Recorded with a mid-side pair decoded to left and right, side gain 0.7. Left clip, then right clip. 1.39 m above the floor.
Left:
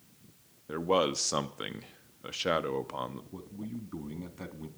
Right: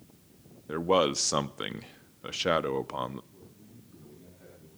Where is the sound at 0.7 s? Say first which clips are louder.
Right 3 dB; 20° right, 0.6 m.